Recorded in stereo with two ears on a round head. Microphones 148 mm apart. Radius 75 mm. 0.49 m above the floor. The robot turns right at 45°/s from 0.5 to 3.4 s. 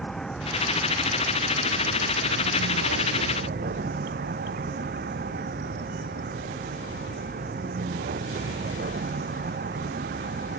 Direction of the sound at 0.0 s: 175° left.